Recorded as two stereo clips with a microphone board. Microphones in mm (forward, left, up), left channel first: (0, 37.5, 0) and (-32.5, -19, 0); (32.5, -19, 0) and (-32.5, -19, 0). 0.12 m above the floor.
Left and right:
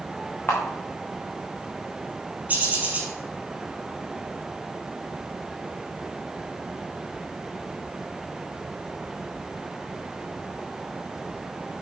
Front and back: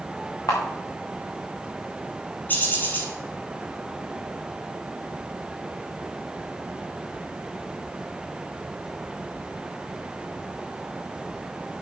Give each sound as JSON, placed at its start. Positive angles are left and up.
{"t": 0.5, "sound": "a camera shutter", "azimuth_deg": 0, "distance_m": 3.5}
{"t": 2.5, "sound": "a bird", "azimuth_deg": -60, "distance_m": 3.0}